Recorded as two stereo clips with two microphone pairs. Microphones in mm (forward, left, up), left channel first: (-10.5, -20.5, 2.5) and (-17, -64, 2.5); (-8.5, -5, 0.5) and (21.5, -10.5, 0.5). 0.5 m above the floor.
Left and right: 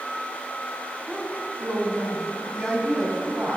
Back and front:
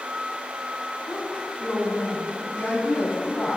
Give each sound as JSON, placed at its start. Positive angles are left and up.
{"t": 1.1, "sound": "a woman speaking", "azimuth_deg": -155, "distance_m": 3.5}
{"t": 2.5, "sound": "a woman speaking", "azimuth_deg": 160, "distance_m": 3.0}